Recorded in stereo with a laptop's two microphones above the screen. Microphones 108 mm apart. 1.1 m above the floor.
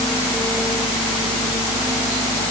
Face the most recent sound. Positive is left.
No sound to turn to.